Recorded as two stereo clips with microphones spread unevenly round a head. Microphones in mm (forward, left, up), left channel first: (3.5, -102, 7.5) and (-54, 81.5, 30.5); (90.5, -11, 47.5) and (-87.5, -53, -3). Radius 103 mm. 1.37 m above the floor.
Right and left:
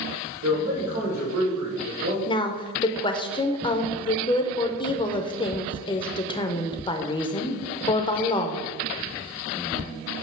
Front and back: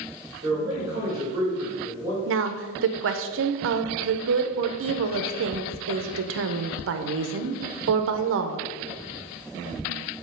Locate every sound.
0.4 s a man speaking: 120° left, 2.5 m
2.3 s a woman speaking: 140° right, 0.7 m